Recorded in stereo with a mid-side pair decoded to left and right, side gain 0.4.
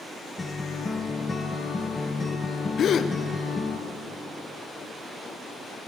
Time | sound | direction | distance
0.4 | a guitar | 25° left | 2.5 m
2.8 | a gasp | 65° left | 1.1 m